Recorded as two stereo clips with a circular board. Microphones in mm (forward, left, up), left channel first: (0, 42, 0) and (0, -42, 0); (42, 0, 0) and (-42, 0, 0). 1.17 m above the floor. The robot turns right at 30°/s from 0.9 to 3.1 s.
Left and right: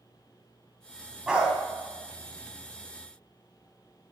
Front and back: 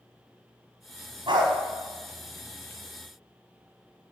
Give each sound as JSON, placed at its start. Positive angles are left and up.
{"t": 1.3, "sound": "a dog barking", "azimuth_deg": -170, "distance_m": 2.5}